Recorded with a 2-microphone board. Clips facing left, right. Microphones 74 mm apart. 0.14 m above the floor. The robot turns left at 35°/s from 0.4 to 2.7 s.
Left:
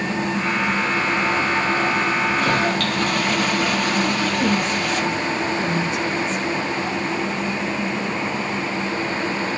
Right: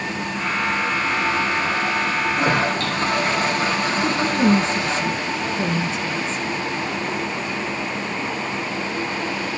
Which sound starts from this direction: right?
A woman speaking, at 4.0 s.